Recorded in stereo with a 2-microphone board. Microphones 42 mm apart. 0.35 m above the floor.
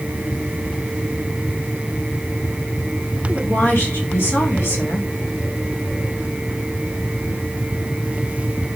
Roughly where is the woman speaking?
Left.